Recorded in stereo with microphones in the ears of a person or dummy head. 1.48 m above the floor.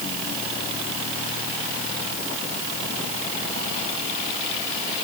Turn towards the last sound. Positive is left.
No sound to turn to.